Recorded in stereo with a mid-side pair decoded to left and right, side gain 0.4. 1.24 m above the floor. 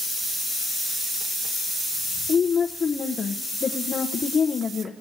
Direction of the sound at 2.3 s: 45° left.